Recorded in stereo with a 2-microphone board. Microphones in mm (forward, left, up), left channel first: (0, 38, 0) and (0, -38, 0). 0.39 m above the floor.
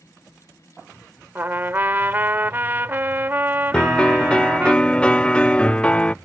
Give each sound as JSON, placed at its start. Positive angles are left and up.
{"t": 1.4, "sound": "a trumpet", "side_deg": -30}
{"t": 3.7, "sound": "a piano", "side_deg": 15}